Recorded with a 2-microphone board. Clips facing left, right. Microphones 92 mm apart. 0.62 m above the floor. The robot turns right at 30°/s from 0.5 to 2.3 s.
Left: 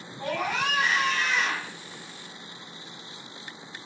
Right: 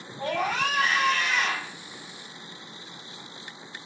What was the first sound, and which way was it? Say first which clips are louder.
A scream: right 2 dB; 140° right.